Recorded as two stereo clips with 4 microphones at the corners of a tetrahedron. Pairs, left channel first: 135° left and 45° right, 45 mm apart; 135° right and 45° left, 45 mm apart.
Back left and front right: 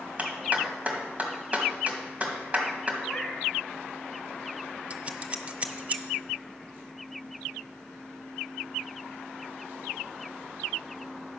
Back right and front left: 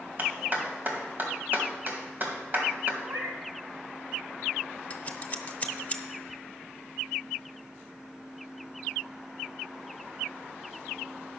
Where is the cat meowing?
45° left, 1.7 m.